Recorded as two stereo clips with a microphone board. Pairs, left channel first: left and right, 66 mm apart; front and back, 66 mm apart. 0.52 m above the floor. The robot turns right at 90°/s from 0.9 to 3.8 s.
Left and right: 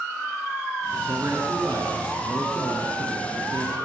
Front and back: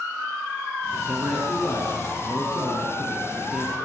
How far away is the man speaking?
About 5.5 m.